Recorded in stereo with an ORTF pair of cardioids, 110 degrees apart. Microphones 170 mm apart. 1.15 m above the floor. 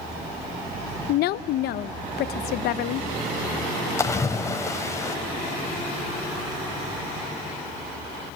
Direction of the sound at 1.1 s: 70° left.